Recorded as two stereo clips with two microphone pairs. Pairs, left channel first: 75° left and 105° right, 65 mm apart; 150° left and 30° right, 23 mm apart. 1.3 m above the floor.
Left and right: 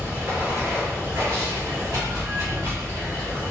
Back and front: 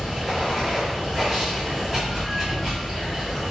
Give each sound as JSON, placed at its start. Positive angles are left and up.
{"t": 0.0, "sound": "running water", "azimuth_deg": -100, "distance_m": 1.6}